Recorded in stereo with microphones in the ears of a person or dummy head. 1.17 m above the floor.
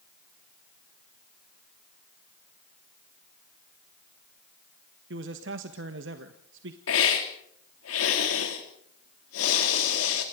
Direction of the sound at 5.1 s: 65° right (ahead or behind).